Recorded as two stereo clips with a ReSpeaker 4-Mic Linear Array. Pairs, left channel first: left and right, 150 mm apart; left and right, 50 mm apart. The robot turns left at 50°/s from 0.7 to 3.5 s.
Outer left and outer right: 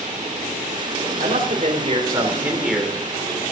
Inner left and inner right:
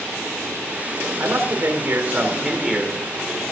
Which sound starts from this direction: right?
A man speaking, at 1.2 s.